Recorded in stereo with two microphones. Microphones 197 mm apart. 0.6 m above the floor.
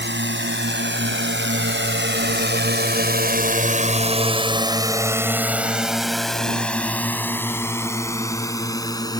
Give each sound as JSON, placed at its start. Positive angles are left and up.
{"t": 0.0, "sound": "a drone", "side_deg": -70}